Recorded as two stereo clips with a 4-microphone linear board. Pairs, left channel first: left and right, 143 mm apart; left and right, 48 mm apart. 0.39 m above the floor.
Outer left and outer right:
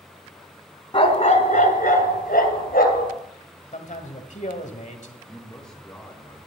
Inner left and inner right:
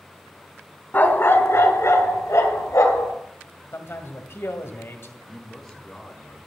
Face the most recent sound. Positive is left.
turn(degrees=5)  # may be behind; listen again after turning